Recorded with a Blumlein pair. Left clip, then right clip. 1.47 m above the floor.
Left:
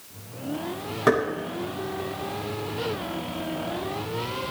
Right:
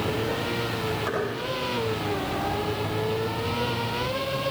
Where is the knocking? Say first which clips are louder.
Left 11 dB; 30° left, 9.5 m.